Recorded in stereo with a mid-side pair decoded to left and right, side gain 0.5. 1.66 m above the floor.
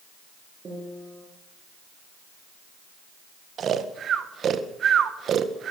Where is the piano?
40° right, 8 m.